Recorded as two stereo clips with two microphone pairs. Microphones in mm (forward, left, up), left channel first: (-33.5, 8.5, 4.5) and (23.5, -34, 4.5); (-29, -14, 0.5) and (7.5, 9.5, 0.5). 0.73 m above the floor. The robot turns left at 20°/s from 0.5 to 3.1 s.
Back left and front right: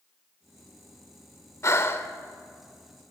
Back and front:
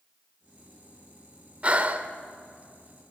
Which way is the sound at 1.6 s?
95° left.